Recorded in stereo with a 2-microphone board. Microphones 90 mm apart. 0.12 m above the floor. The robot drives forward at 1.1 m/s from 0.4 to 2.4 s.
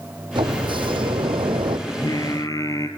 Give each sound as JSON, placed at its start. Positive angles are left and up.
{"t": 0.3, "sound": "a sliding door", "side_deg": -65, "distance_m": 2.5}
{"t": 1.9, "sound": "singing", "side_deg": 55, "distance_m": 1.4}